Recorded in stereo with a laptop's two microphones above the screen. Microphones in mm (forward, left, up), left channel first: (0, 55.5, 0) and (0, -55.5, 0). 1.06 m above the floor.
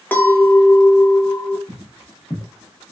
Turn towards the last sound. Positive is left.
turn(degrees=-10)  # may be behind; listen again after turning